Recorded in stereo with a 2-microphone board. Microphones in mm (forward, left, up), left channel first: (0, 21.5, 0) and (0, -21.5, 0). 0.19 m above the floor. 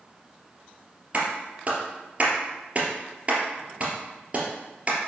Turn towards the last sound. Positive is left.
turn(degrees=-35)  # may be behind; listen again after turning